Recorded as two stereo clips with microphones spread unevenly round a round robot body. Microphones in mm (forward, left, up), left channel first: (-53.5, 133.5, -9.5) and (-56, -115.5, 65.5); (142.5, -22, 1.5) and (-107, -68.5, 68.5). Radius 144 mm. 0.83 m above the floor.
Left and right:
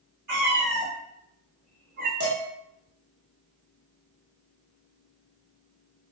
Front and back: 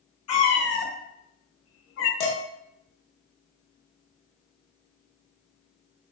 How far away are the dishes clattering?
About 0.8 m.